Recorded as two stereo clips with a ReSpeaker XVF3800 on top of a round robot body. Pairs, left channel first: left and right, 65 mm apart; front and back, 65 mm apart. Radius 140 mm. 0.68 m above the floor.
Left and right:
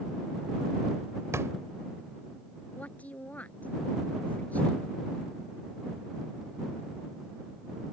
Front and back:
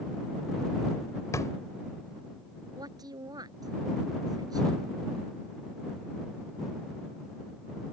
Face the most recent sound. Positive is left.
turn(degrees=160)